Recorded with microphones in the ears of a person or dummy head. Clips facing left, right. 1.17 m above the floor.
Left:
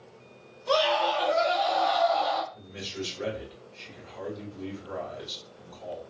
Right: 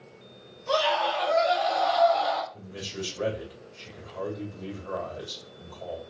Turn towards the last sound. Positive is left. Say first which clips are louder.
# even
turn(degrees=-50)  # may be behind; listen again after turning